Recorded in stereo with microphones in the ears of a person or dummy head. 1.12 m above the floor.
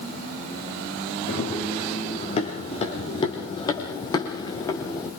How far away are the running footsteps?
About 5.5 m.